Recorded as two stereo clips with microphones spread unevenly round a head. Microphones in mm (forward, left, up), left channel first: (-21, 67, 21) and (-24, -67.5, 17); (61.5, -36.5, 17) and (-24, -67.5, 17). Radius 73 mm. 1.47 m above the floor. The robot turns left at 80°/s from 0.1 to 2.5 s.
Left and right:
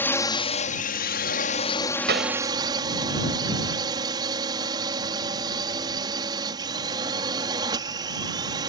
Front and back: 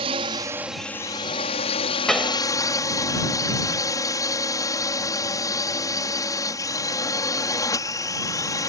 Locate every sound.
0.0 s a drone: 165° left; by 8.7 s 30° right
2.1 s a pop: 65° right; by 2.4 s 90° right